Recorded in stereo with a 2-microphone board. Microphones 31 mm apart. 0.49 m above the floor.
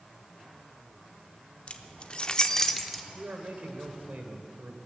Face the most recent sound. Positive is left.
turn(degrees=-60)  # may be behind; listen again after turning